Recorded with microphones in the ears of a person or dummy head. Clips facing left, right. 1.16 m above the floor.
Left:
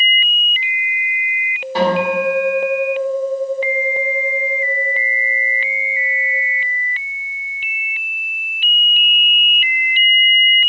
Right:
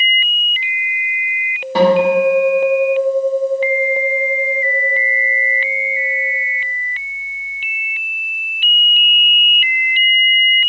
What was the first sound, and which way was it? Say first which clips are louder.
A guitar: right 5 dB; 75° right (ahead or behind).